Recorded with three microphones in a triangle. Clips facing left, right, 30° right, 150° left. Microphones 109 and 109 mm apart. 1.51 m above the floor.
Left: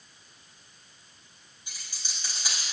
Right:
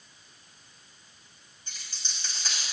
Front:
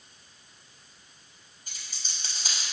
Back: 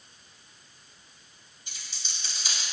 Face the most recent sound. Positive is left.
turn(degrees=10)